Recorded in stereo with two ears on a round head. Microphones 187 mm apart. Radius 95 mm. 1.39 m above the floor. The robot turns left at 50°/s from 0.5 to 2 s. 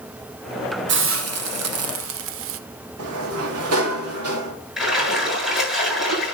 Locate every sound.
0.9 s a hiss: 55° right, 0.6 m; by 2.6 s 110° right, 0.6 m
3.0 s a sliding door: 85° right, 2.5 m
4.8 s a splash: centre (ahead or behind), 8 m